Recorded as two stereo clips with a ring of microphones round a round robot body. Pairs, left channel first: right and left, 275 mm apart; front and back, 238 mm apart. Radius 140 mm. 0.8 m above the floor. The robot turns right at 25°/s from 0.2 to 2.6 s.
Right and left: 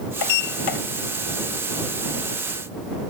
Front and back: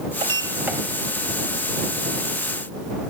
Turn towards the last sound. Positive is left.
turn(degrees=-50)